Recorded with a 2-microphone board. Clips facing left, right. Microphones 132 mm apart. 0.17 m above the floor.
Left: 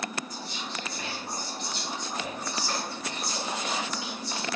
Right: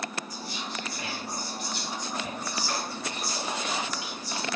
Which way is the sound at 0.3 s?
25° left (ahead or behind).